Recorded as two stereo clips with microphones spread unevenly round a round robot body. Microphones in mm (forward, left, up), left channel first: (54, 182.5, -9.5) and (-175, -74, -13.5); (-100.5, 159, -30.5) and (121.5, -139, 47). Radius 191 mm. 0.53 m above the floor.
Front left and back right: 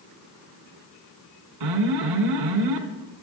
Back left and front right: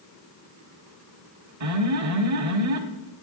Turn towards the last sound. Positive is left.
turn(degrees=-100)